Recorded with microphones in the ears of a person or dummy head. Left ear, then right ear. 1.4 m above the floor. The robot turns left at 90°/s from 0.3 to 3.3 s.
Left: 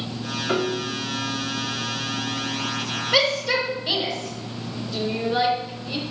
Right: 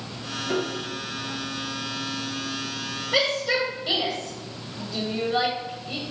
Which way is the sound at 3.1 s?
20° left (ahead or behind).